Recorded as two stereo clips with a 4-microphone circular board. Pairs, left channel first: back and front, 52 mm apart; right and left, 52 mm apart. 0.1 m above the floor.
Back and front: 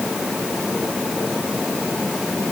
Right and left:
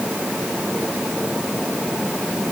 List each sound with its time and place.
Only background noise.